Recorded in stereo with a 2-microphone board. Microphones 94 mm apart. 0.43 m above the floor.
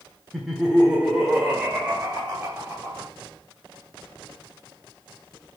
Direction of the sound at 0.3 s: Centre (ahead or behind).